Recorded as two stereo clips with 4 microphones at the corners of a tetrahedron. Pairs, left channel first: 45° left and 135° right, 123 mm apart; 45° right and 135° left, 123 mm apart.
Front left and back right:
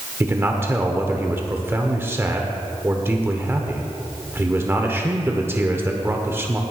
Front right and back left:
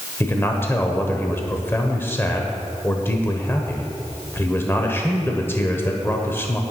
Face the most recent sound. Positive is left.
turn(degrees=-85)